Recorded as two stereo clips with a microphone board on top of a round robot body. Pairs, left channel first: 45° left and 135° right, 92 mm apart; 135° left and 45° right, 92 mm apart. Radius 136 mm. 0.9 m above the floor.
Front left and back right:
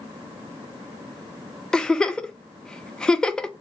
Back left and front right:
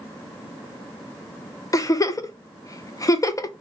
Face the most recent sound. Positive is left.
turn(degrees=120)